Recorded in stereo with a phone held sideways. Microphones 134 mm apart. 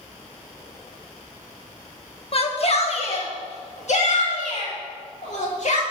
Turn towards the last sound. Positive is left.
turn(degrees=60)  # may be behind; listen again after turning